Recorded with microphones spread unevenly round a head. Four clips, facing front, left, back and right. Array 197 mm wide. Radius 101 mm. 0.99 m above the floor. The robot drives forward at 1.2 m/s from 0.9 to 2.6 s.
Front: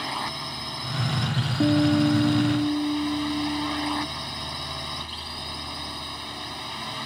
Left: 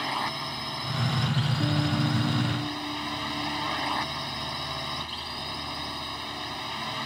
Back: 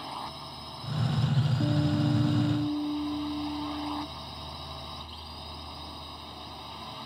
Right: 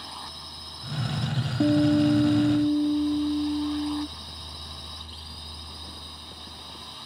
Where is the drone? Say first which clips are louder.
Left 11 dB, front 7 dB; 50° left.